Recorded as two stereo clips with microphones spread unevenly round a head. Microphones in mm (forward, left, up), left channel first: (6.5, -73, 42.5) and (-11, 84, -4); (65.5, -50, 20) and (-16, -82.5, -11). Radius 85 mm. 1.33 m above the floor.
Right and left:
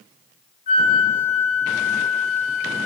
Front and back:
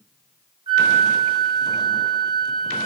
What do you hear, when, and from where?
0.7 s a flute: 135° right, 0.5 m